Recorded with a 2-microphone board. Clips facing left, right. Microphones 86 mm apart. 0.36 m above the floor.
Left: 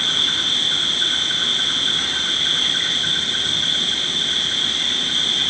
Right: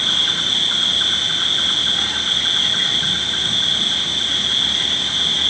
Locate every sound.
0.0 s an insect: 65° right (ahead or behind), 4.5 m